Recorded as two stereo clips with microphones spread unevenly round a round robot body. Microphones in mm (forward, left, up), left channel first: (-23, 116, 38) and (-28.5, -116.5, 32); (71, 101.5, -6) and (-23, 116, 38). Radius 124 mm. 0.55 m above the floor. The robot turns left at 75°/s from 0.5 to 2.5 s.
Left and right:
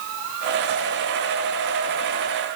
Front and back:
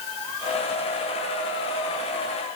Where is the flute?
No flute in this recording.